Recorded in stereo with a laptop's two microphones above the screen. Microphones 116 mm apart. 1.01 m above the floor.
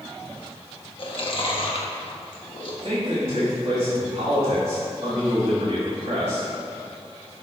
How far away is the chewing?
About 1.2 m.